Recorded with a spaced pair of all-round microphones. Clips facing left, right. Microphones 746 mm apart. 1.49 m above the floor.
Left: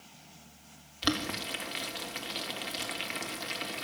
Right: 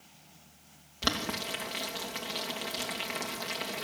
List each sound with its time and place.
1.0 s boiling: 70° right (ahead or behind), 3 m